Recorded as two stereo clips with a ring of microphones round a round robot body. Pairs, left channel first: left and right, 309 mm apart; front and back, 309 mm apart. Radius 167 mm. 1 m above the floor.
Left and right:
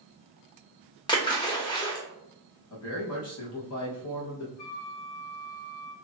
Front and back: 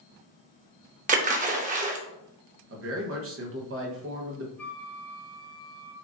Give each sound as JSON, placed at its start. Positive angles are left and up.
{"t": 1.1, "sound": "a splash", "azimuth_deg": 150, "distance_m": 0.6}
{"t": 2.7, "sound": "a man speaking", "azimuth_deg": 135, "distance_m": 0.9}
{"t": 4.6, "sound": "a flute", "azimuth_deg": 85, "distance_m": 0.9}